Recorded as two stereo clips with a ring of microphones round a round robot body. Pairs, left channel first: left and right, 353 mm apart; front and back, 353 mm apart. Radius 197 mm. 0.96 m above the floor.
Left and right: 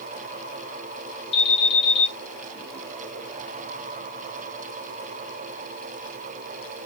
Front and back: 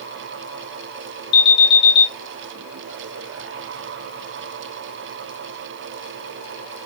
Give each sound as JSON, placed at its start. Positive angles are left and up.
{"t": 1.3, "sound": "an alarm", "azimuth_deg": 80, "distance_m": 1.9}